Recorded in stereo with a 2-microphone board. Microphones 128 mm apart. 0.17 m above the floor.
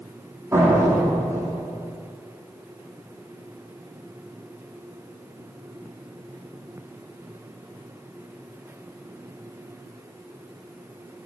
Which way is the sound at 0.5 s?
25° right (ahead or behind).